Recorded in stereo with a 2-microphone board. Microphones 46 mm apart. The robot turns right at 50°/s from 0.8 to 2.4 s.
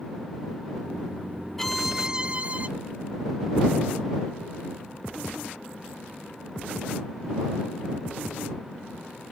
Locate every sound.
1.6 s a violin: 170° left; by 2.7 s 150° right